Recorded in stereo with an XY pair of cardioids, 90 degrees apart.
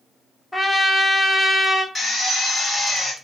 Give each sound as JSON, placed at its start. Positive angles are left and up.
{"t": 0.5, "sound": "a trumpet", "azimuth_deg": 10, "distance_m": 0.9}
{"t": 1.9, "sound": "a drill", "azimuth_deg": 35, "distance_m": 2.5}